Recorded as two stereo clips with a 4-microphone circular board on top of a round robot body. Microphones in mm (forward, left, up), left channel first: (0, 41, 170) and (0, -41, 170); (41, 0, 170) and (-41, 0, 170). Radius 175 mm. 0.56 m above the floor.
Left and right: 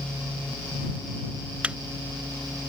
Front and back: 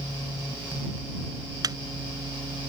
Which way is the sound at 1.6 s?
160° right.